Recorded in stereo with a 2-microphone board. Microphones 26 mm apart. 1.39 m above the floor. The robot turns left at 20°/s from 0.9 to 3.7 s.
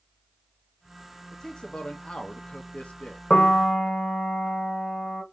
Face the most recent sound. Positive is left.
turn(degrees=25)  # may be behind; listen again after turning